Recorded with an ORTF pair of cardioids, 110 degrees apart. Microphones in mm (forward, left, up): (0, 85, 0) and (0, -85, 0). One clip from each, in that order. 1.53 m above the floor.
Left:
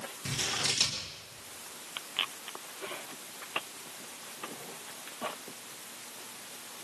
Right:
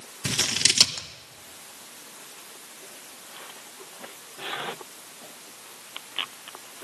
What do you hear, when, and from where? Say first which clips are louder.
0.2 s scissors: right 8 dB; 55° right, 1.7 m